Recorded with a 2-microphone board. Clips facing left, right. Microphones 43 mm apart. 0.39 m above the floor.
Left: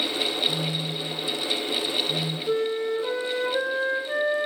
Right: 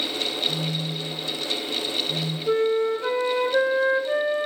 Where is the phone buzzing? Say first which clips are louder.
Even; 40° left (ahead or behind), 1.2 m.